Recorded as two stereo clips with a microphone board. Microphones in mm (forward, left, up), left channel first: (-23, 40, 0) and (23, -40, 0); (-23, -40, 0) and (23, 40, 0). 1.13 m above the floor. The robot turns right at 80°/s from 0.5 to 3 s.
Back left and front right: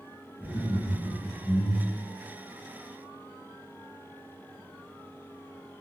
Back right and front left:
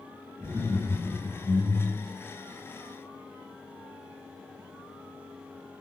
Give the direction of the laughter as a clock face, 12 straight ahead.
9 o'clock.